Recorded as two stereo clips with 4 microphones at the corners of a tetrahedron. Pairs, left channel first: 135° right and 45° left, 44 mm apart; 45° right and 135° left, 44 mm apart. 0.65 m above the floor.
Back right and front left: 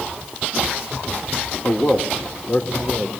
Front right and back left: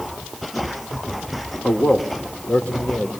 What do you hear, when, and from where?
1.6 s a man speaking: 90° right, 2 m; by 3.1 s 95° right, 2.5 m